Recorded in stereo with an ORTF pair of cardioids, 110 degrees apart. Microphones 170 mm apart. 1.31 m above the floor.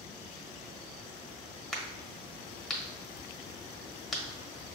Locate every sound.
1.7 s a crack: straight ahead, 1.2 m